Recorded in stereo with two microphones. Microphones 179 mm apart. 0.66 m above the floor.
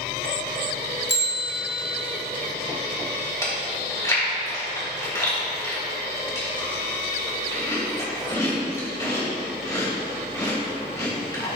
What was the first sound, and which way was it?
A bell, 75° left (ahead or behind).